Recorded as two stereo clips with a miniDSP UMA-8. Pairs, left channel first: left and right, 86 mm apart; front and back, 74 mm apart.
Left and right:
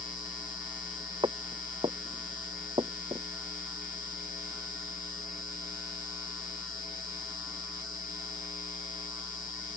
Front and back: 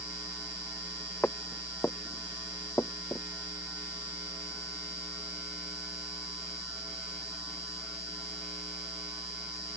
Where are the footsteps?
70° right; by 3.3 s 60° right.